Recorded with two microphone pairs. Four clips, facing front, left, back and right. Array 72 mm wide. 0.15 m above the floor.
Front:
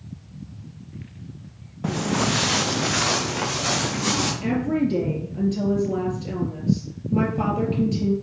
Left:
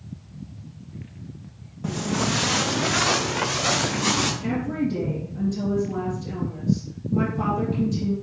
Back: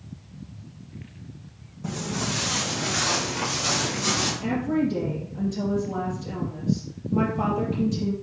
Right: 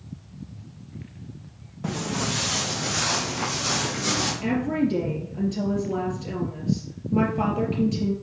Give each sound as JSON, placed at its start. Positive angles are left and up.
{"t": 1.8, "sound": "footsteps", "azimuth_deg": -20, "distance_m": 0.9}
{"t": 4.4, "sound": "a woman speaking", "azimuth_deg": -45, "distance_m": 4.0}